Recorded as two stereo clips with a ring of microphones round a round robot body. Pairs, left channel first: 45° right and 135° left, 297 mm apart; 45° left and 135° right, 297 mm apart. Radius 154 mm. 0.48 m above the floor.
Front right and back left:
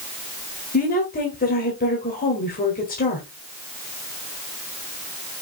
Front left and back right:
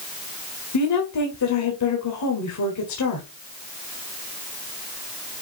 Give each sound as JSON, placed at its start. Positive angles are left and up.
{"t": 0.7, "sound": "a woman speaking", "azimuth_deg": 15, "distance_m": 1.8}